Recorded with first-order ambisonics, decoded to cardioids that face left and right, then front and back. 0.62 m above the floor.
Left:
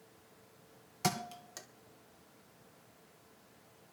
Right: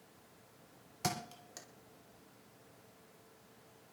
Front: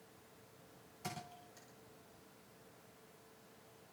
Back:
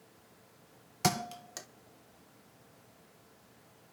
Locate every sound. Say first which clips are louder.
1.0 s a thud: left 3 dB, back 16 dB; 170° left, 1.2 m